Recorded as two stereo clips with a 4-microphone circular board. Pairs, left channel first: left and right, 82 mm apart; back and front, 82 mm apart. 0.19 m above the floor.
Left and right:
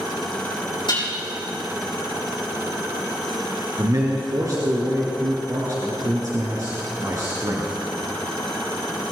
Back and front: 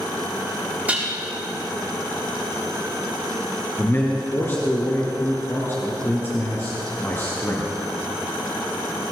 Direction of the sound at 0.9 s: 70° left.